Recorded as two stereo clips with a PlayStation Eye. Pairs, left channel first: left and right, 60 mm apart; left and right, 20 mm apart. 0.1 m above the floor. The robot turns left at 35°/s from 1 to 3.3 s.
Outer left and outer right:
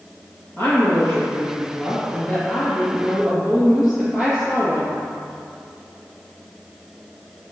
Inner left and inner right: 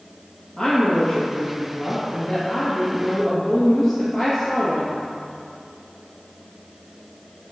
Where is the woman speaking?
75° left, 2.0 m; by 5.0 s 5° right, 2.0 m.